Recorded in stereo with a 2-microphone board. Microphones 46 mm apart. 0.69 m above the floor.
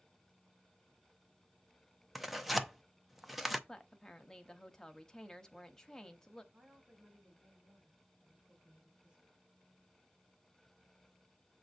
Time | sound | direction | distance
2.1 | tearing paper | 5° right (ahead or behind) | 0.6 m
3.7 | a woman speaking | 15° left (ahead or behind) | 0.9 m
6.5 | a woman speaking | 25° right (ahead or behind) | 5 m